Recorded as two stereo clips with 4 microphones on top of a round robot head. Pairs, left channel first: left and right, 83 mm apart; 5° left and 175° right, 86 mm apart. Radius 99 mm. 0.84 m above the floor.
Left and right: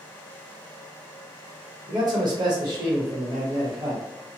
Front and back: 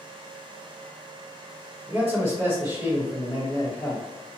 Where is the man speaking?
115° right, 1.2 m.